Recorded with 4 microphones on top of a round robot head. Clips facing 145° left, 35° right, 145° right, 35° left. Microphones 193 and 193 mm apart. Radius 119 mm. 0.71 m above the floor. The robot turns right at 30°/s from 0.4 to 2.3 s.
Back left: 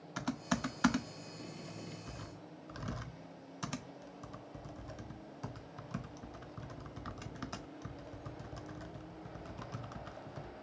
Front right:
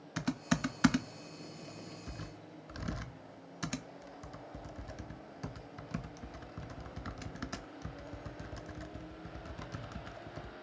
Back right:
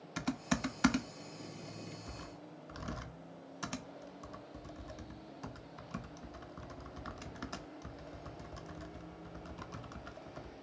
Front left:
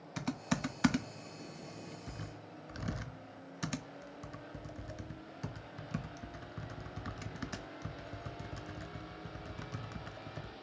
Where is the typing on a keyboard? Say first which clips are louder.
Front right 3 dB, even; 55° right, 0.7 m; by 10.5 s straight ahead, 0.7 m.